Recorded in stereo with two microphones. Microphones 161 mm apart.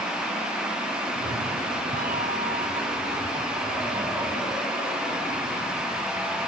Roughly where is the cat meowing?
Right.